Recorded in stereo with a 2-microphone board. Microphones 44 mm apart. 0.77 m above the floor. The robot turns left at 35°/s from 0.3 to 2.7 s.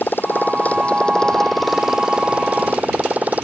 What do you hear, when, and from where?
0.0 s a motorcycle: 45° left; by 3.5 s 40° right